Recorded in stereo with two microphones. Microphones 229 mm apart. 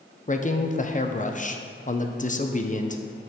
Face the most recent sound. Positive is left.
turn(degrees=35)  # may be behind; listen again after turning